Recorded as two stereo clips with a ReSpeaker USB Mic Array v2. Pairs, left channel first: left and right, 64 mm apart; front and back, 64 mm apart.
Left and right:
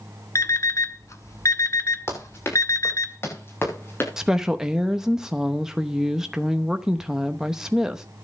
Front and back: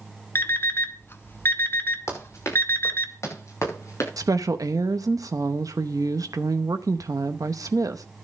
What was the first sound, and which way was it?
An alarm clock, 50° left.